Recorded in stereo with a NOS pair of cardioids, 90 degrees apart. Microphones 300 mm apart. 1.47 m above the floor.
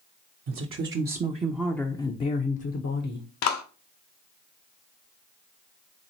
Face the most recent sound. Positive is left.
turn(degrees=70)